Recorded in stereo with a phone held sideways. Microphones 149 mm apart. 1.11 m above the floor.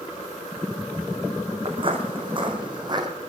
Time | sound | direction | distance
1.6 | footsteps | 40° right (ahead or behind) | 4 m